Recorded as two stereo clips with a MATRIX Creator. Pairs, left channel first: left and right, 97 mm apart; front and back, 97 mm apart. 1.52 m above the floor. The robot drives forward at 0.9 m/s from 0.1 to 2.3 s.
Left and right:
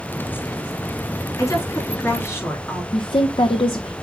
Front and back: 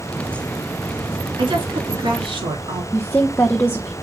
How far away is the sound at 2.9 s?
About 0.9 m.